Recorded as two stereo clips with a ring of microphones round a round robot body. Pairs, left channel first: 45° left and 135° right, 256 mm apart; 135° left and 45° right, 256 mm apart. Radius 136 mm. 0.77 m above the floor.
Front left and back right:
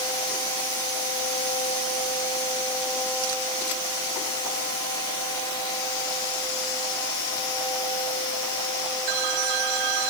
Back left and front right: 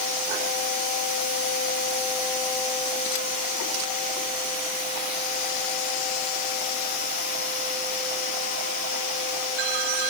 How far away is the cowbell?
I don't hear a cowbell.